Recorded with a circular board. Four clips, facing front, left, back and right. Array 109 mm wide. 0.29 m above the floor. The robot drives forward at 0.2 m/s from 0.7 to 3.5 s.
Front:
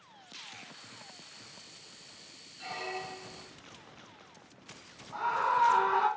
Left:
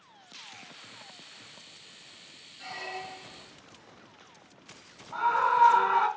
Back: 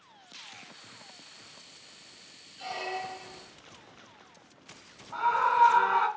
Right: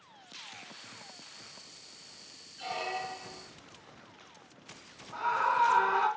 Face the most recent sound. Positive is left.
turn(degrees=145)